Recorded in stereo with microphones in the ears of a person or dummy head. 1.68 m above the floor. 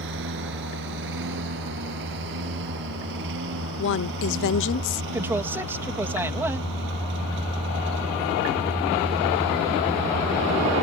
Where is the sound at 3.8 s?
60° left (ahead or behind).